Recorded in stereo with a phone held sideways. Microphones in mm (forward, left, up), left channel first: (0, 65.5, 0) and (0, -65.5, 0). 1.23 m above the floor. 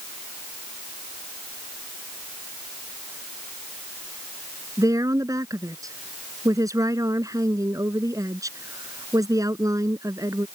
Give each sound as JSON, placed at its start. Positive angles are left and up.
{"t": 4.8, "sound": "a woman speaking", "side_deg": -25}